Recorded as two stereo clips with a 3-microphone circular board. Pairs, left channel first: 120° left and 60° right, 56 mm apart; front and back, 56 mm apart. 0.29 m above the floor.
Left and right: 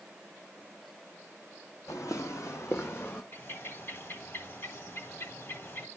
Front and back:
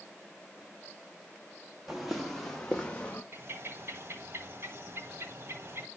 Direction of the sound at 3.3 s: 150° left.